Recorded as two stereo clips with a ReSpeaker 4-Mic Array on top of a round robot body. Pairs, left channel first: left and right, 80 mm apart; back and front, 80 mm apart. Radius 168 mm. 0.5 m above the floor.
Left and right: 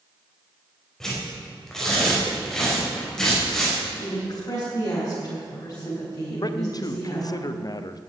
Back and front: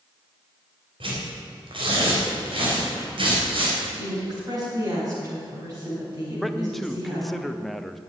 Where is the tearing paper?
5° left, 4 m.